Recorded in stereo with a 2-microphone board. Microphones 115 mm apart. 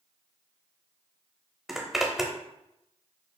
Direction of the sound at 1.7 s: Centre (ahead or behind).